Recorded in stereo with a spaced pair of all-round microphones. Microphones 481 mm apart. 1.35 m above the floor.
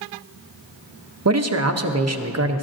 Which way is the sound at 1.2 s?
35° right (ahead or behind).